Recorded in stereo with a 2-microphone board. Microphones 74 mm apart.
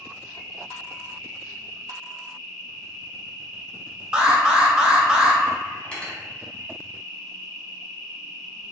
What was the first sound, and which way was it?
An insect, 45° left (ahead or behind).